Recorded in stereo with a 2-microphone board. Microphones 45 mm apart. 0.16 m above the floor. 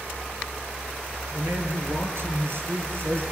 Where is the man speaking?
65° right (ahead or behind), 3.5 m; by 3.2 s 50° right (ahead or behind), 2.5 m.